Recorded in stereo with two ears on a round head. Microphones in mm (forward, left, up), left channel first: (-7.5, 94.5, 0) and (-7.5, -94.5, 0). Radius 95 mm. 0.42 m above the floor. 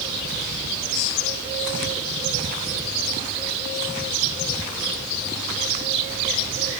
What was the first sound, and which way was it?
Only background noise.